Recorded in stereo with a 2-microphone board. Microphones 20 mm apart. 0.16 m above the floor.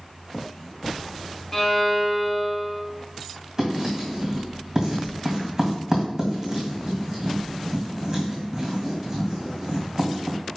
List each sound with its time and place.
1.5 s a violin: 20° left (ahead or behind), 1.1 m
3.6 s writing: 25° right (ahead or behind), 2.5 m